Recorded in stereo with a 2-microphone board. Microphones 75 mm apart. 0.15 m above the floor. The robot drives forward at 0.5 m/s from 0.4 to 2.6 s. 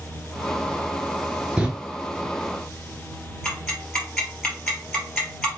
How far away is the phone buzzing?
No phone buzzing in this recording.